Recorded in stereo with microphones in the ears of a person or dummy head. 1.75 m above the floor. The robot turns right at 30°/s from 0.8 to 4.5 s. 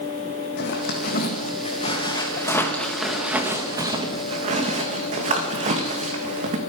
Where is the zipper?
65° left (ahead or behind), 2.0 m; by 6.6 s 40° right (ahead or behind), 2.0 m.